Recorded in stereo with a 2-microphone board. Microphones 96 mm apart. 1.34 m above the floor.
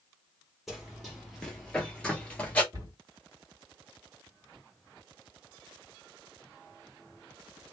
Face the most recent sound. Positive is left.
turn(degrees=-40)  # may be behind; listen again after turning